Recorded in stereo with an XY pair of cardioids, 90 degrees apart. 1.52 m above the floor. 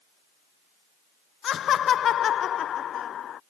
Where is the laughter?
65° left.